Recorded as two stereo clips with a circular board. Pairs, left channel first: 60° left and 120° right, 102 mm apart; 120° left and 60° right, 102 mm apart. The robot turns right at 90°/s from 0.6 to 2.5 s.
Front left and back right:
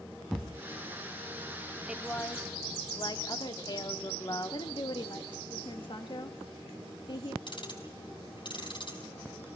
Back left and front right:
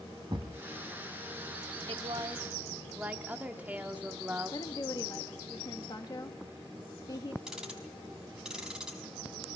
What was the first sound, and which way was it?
A thud, 30° right.